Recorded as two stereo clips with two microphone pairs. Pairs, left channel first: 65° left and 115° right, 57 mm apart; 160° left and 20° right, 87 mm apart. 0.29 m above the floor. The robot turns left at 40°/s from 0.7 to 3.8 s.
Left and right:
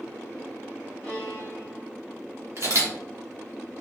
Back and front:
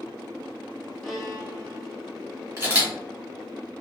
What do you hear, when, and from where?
1.0 s a violin: 85° left, 1.1 m; by 1.9 s 50° left, 1.1 m
2.6 s a camera shutter: 80° right, 1.8 m; by 2.9 s 95° right, 1.8 m